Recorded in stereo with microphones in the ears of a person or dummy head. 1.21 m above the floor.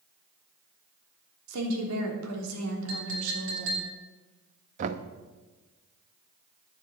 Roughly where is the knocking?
Right.